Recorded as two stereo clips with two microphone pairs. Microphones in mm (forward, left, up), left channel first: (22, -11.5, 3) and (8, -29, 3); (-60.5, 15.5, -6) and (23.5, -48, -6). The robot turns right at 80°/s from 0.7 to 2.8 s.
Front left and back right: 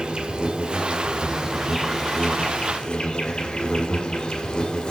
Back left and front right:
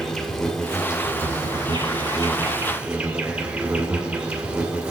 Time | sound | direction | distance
0.0 | an insect | 130° right | 1.5 m